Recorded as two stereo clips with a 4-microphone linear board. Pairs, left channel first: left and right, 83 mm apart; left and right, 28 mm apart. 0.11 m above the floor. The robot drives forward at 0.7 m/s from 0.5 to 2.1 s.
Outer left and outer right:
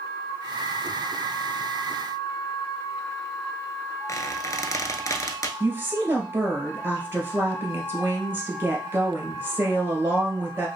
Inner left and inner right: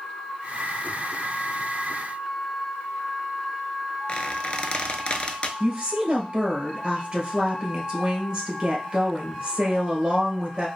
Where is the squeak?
40° left (ahead or behind), 0.6 m.